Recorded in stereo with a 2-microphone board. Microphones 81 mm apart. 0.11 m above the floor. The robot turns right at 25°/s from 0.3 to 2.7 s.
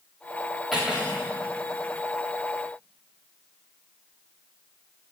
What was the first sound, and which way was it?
Cutlery clinking, 5° right (ahead or behind).